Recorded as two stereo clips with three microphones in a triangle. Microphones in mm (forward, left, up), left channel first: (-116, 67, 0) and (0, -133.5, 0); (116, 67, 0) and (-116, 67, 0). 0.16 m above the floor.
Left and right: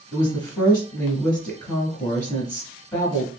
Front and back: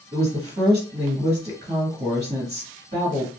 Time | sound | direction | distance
0.1 | a woman speaking | 165° right | 1.3 m